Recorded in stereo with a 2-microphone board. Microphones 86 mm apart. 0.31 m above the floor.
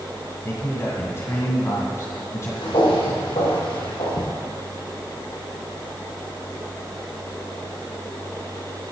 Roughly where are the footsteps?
Left.